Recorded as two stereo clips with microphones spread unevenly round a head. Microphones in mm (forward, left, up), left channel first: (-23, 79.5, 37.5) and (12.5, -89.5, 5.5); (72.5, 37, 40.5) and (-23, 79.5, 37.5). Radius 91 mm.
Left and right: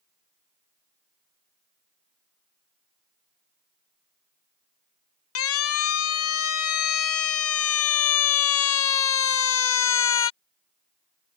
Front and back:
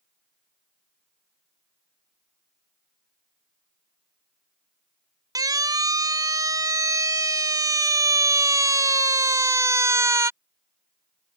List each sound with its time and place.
5.3 s a siren: 105° left; by 10.3 s 95° left